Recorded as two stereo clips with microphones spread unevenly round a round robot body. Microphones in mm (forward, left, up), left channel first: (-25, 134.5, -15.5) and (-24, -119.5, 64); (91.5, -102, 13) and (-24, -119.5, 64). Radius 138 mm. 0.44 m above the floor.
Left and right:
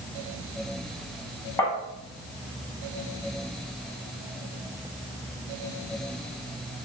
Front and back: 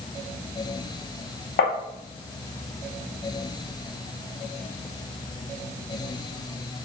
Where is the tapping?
5° left, 0.5 m.